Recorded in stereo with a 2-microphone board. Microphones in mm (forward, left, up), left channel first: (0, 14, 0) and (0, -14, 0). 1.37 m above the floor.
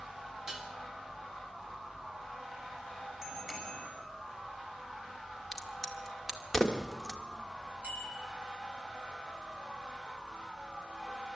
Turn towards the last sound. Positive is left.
turn(degrees=-50)  # may be behind; listen again after turning